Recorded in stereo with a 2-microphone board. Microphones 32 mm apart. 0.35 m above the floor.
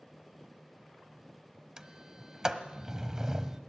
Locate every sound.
1.8 s a sliding door: 15° right (ahead or behind), 1.1 m